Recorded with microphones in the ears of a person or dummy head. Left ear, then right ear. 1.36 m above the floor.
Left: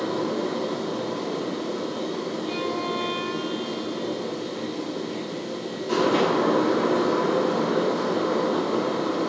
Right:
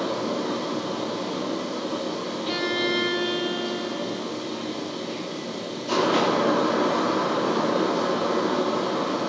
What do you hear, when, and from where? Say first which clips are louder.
0.0 s a fan: even; 50° right (ahead or behind), 1.9 m
2.5 s a violin: right 5 dB; 50° right (ahead or behind), 0.8 m